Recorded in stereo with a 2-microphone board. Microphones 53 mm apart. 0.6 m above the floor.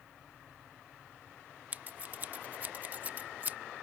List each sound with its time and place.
1.7 s scissors: 35° right (ahead or behind)